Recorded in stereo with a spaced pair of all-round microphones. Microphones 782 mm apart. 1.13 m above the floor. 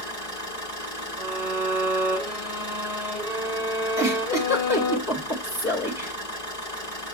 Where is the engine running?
50° left (ahead or behind), 5 m.